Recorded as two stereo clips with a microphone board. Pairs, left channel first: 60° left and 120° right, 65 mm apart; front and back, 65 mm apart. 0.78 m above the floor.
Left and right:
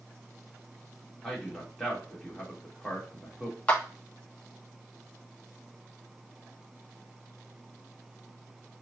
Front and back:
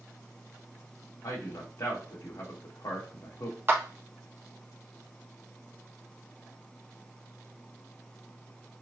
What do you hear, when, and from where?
1.2 s a man speaking: 25° right, 1.9 m
3.7 s a clap: 125° left, 1.2 m